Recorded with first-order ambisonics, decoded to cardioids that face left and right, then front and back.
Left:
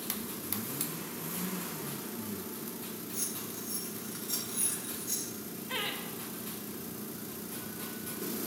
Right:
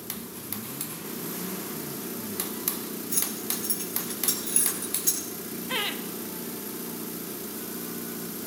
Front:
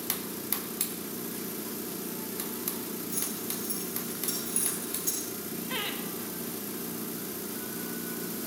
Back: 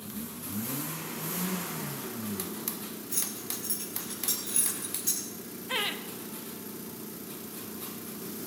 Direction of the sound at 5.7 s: 120° right.